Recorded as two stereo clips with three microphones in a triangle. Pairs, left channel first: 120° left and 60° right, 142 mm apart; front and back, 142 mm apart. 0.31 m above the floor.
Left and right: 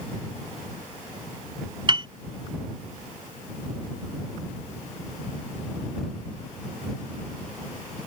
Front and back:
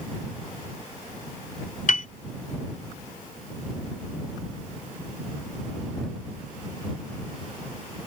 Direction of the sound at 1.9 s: 10° right.